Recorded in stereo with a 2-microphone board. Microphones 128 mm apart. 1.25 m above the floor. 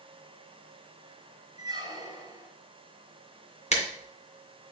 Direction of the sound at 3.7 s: 60° left (ahead or behind).